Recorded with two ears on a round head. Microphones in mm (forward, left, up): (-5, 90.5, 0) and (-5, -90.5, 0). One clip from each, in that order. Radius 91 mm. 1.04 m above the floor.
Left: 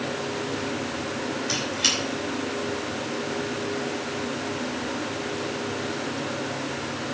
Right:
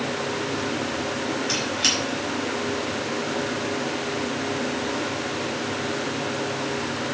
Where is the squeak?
5° right (ahead or behind), 6.5 m.